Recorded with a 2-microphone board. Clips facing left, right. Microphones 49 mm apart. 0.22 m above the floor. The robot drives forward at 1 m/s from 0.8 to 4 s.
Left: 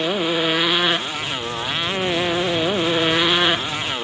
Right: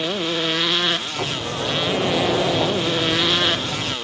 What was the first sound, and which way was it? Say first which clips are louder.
A motorcycle: left 3 dB; 15° left (ahead or behind).